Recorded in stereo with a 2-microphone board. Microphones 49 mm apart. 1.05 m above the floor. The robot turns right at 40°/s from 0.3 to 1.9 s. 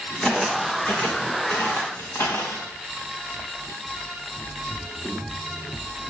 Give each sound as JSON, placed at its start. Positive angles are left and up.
{"t": 0.2, "sound": "footsteps", "side_deg": 0, "distance_m": 3.0}